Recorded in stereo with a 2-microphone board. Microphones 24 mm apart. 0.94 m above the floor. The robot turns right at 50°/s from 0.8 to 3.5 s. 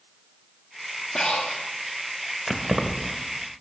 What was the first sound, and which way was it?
Breathing, 25° left (ahead or behind).